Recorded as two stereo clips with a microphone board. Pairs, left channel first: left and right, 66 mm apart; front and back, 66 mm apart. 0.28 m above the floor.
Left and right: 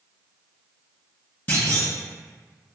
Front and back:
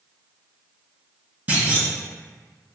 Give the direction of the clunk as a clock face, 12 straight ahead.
7 o'clock.